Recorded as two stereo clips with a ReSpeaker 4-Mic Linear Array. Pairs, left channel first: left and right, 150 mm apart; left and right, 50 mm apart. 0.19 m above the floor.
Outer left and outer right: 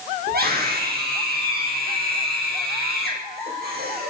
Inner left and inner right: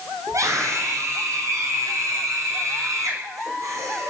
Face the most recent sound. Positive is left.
turn(degrees=-80)